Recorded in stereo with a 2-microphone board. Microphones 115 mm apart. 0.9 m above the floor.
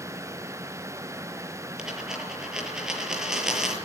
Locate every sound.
1.8 s a dropped coin: 5° right (ahead or behind), 7 m